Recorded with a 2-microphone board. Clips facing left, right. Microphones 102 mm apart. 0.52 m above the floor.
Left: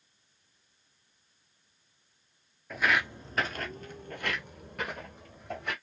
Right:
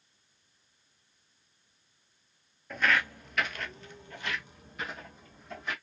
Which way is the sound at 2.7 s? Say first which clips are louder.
Even; centre (ahead or behind).